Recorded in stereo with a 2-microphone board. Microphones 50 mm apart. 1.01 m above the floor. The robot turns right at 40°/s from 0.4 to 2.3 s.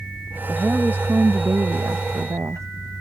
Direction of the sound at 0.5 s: 155° right.